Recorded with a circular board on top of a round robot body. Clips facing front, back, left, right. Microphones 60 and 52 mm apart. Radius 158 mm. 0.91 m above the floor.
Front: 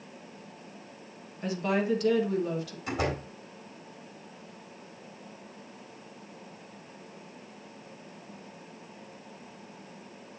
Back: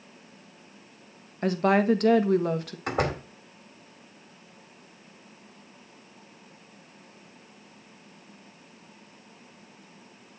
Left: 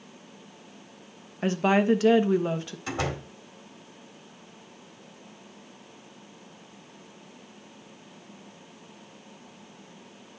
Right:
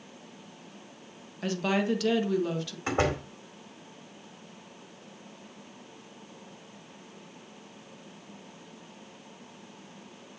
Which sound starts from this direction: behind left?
A woman speaking, at 1.4 s.